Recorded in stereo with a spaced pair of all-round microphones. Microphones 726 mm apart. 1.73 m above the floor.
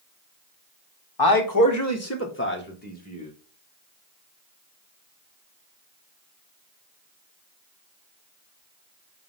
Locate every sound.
1.2 s a man speaking: 30° left (ahead or behind), 1.4 m; by 3.3 s 10° left (ahead or behind), 2.5 m